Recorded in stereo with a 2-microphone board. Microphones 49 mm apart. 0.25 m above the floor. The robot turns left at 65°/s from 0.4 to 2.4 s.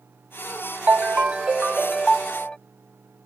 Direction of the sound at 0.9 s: 115° right.